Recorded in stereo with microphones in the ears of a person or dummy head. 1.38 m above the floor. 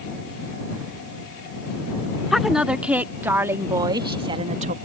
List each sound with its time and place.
2.3 s a woman speaking: 5° right (ahead or behind); by 4.8 s 45° right (ahead or behind)